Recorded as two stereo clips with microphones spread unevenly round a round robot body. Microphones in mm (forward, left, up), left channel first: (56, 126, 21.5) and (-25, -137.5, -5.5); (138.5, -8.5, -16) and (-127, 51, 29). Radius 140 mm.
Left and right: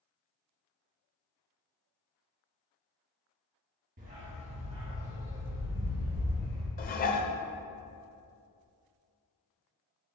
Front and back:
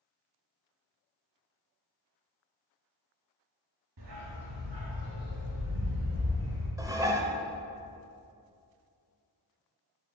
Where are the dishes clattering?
85° left, 0.5 m.